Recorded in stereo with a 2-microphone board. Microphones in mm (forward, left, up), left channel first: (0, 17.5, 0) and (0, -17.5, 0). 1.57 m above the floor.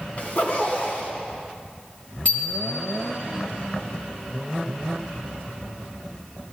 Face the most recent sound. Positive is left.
turn(degrees=35)  # may be behind; listen again after turning